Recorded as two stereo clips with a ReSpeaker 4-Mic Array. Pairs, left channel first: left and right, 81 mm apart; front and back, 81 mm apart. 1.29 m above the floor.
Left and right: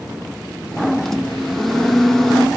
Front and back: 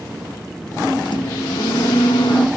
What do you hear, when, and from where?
1.1 s a microwave: 5° left, 1.0 m